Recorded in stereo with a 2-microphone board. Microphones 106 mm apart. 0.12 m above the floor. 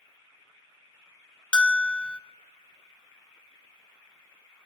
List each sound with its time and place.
1.5 s a bell: 10° left (ahead or behind), 0.9 m